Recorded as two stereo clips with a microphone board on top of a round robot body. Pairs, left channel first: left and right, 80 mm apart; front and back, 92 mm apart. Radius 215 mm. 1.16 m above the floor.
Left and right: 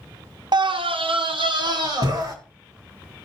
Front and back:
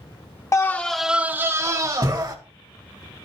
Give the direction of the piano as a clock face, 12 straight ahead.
No piano in this recording.